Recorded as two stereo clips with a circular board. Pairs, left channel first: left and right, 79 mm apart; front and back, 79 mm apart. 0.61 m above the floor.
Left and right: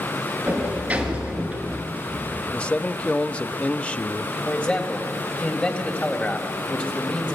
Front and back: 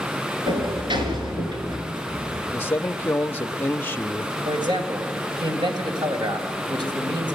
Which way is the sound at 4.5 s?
160° left.